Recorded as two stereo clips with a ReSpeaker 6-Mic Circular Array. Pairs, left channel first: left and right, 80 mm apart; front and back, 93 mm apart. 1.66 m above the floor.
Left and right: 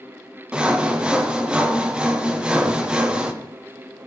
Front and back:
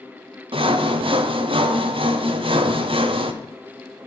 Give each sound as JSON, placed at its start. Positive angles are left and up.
{"t": 0.5, "sound": "sawing", "azimuth_deg": -170, "distance_m": 0.8}